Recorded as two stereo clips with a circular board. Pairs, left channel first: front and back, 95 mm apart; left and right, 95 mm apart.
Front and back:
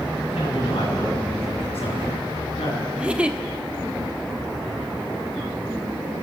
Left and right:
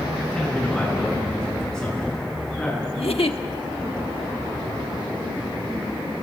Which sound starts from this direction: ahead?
A man speaking, at 0.3 s.